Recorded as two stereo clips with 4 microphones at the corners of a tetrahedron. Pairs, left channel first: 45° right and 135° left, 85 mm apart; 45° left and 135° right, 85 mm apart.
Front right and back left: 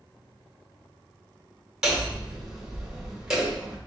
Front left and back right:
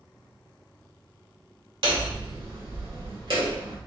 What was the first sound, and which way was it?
Hammering, 145° right.